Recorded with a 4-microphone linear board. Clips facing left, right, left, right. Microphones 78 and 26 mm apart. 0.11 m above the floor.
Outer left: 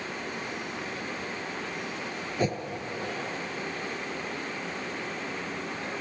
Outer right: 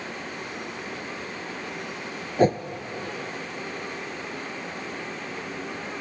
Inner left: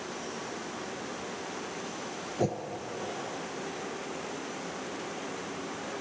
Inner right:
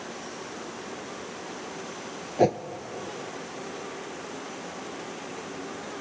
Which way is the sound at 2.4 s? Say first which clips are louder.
Outer right 9 dB, inner right 9 dB; 45° right (ahead or behind).